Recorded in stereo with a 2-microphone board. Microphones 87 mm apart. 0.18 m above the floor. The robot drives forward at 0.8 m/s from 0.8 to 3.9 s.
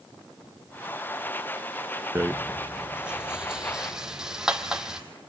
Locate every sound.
2.1 s a rattle: 30° right (ahead or behind), 0.5 m; by 5.0 s 10° right (ahead or behind), 1.8 m